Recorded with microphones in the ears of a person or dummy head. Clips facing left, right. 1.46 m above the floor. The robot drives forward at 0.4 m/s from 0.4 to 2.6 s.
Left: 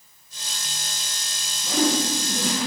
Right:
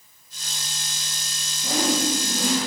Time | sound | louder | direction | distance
1.6 | a whoosh | left 1 dB | 50° right (ahead or behind) | 2 m